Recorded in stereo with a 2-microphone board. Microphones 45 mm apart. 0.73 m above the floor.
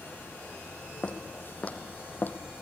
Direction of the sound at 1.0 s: 25° left (ahead or behind).